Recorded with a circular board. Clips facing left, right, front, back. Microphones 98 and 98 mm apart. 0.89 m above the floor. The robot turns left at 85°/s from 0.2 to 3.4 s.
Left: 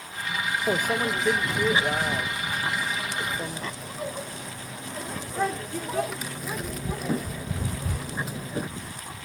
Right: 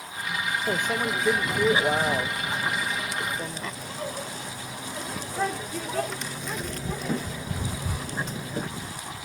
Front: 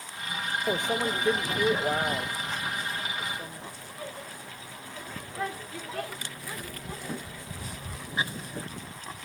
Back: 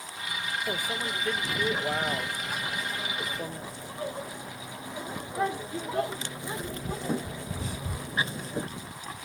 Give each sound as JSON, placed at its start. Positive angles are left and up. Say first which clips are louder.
{"t": 0.7, "sound": "a microwave", "louder": "left 2 dB, front 8 dB", "azimuth_deg": 40}